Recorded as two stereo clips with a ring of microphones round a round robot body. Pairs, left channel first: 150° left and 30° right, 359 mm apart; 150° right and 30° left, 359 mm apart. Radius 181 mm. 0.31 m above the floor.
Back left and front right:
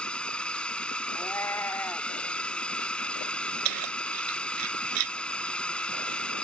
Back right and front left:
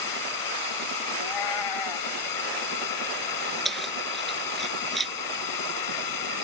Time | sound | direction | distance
0.0 | a drone | 125° right | ?
1.1 | a cat meowing | 125° right | ?
3.6 | keys jangling | 60° right | ?